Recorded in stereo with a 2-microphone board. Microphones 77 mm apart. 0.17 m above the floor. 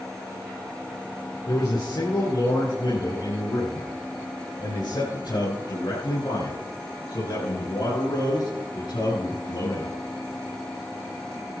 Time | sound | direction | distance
1.5 | a man speaking | 60° left (ahead or behind) | 3.5 m